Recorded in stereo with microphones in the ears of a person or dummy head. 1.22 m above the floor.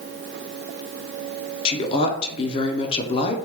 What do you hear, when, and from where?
1.6 s a woman speaking: 25° left (ahead or behind), 0.5 m